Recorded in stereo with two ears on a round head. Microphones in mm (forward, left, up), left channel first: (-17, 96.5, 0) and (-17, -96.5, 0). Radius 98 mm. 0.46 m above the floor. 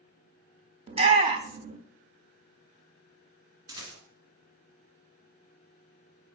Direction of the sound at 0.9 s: 30° right (ahead or behind).